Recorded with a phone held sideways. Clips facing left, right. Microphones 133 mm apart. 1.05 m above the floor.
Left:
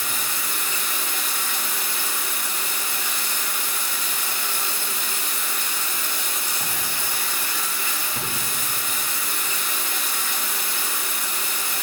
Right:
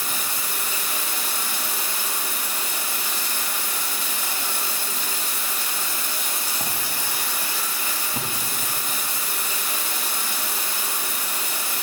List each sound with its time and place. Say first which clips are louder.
0.0 s running water: even; 30° right (ahead or behind), 1.2 m